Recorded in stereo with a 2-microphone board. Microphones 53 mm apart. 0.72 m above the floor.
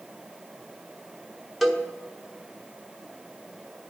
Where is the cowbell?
5° left (ahead or behind), 1.0 m.